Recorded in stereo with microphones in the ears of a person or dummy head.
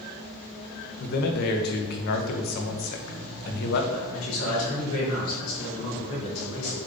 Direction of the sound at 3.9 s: 85° left.